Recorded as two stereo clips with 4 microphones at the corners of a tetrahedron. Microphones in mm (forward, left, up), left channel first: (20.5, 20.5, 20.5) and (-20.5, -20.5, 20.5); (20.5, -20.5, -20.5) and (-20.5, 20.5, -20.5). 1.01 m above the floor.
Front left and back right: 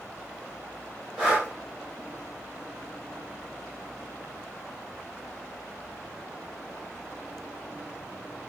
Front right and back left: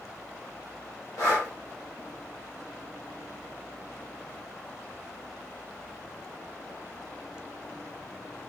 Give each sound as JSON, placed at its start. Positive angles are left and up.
{"t": 1.2, "sound": "breathing", "azimuth_deg": -60, "distance_m": 2.0}